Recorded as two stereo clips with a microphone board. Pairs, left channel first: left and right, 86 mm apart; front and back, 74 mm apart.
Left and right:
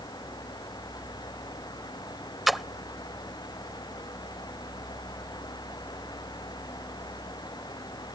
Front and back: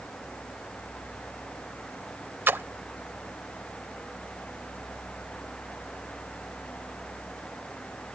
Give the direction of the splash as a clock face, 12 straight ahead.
6 o'clock.